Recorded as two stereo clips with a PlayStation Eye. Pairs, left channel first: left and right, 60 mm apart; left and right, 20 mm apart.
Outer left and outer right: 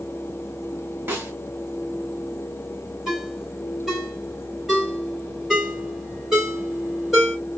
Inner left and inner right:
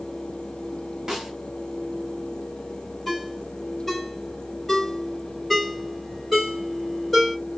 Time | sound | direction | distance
1.1 | a snare drum | 35° right (ahead or behind) | 1.6 m
3.1 | a ringtone | 5° right (ahead or behind) | 2.5 m